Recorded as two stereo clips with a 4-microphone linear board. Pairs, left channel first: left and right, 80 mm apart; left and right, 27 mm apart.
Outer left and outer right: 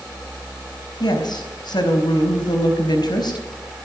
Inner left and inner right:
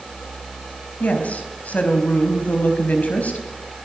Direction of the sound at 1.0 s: 65° left (ahead or behind).